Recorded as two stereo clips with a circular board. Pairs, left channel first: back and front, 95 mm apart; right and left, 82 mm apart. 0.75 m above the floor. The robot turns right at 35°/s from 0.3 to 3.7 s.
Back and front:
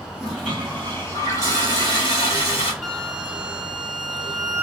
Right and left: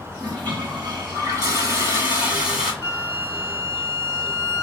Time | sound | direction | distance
0.1 | a toilet flushing | 90° left | 1.8 m
2.8 | a flute | 100° right | 0.6 m